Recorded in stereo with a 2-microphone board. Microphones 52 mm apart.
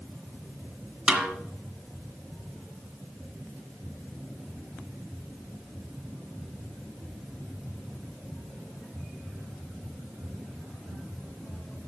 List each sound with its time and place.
1.1 s a snare drum: 15° right (ahead or behind), 1.4 m